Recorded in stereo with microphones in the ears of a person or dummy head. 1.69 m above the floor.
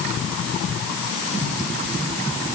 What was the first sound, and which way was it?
Only background noise.